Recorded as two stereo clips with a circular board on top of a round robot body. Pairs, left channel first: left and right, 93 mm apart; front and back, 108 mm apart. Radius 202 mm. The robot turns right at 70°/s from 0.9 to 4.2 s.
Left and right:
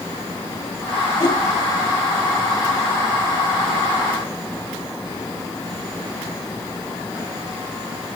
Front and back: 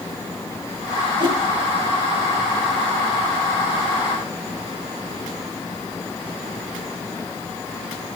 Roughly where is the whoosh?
Behind left.